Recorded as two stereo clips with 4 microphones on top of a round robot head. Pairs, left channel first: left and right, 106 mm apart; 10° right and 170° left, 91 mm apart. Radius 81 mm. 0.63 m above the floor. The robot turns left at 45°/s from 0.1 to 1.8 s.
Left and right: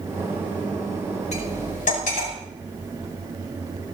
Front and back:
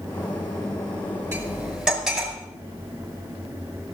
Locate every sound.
1.3 s cutlery clinking: 110° left, 5.5 m; by 2.3 s 85° left, 5.5 m